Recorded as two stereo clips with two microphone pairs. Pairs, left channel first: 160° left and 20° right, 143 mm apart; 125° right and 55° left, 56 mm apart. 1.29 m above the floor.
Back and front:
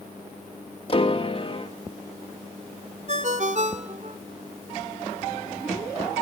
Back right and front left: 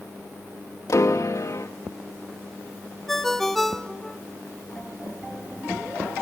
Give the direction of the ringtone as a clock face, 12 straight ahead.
1 o'clock.